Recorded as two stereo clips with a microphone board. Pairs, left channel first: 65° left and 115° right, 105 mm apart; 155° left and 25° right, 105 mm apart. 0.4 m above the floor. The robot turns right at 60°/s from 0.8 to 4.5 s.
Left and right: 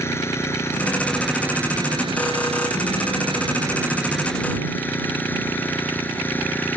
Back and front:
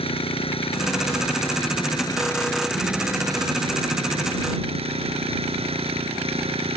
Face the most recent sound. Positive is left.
turn(degrees=-5)